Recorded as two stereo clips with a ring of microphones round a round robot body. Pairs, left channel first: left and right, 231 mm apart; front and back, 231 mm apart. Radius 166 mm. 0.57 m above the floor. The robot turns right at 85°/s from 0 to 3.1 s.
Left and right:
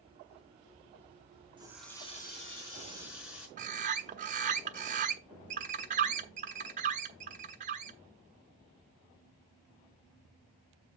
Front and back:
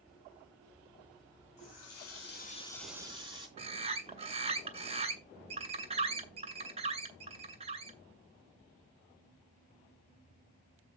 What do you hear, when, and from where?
1.6 s a running tap: 20° right, 3.5 m; by 3.5 s 110° left, 3.5 m
3.6 s a bird: 130° right, 0.7 m